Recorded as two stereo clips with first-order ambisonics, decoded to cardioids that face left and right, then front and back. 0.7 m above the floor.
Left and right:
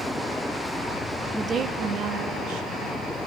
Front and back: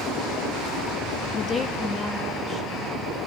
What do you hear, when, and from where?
1.3 s a woman speaking: 15° right, 0.6 m; by 3.0 s 70° right, 2.5 m